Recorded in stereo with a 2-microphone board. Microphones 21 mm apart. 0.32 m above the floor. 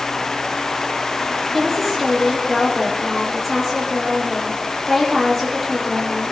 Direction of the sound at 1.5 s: 10° left (ahead or behind).